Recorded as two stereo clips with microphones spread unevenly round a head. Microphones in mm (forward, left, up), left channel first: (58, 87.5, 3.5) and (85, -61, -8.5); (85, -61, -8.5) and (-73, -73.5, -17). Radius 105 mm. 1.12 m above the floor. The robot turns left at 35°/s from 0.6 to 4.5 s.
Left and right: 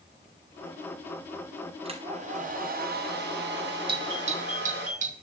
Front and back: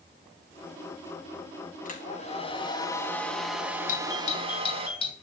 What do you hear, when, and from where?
1.9 s a hair dryer: 25° right, 4.5 m; by 4.9 s 120° right, 4.5 m
3.9 s a doorbell: 30° right, 3 m; by 5.1 s 50° right, 3 m